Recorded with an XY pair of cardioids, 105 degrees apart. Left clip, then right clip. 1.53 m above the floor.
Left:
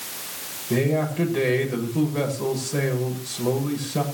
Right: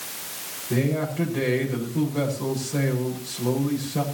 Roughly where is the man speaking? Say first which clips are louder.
Left 3 dB; ahead.